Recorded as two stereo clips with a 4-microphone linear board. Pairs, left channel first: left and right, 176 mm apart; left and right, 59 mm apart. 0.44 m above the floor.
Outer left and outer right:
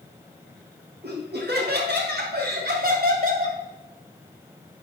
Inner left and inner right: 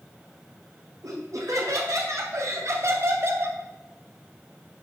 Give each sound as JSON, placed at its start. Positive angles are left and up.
{"t": 1.0, "sound": "laughter", "side_deg": -70, "distance_m": 4.0}